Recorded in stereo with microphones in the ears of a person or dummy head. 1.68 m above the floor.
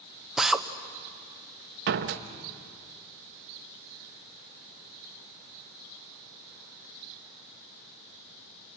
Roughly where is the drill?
Centre.